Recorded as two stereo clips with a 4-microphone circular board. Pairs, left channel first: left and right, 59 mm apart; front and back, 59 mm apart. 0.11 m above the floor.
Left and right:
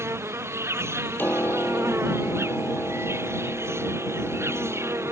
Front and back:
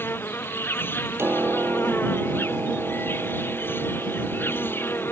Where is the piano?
140° left.